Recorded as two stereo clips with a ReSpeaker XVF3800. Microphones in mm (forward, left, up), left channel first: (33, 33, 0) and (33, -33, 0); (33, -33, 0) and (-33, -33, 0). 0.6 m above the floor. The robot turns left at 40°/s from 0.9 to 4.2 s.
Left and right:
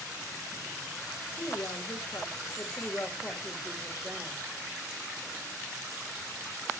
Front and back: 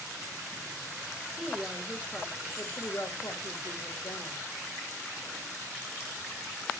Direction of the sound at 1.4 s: 95° left.